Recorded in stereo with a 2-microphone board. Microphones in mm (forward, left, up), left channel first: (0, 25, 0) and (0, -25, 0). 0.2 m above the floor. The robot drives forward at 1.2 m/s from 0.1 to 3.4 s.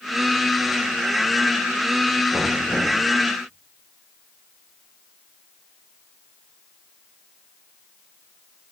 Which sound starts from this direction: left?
Knocking, at 2.3 s.